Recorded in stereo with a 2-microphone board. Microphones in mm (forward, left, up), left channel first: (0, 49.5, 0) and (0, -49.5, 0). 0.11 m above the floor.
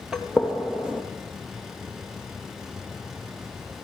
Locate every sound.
0.1 s a gunshot: 5° right (ahead or behind), 2 m